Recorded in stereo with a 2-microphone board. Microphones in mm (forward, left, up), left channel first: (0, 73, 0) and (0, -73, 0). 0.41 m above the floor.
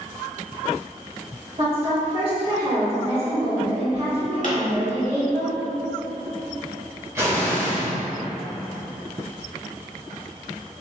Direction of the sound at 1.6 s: 45° right (ahead or behind).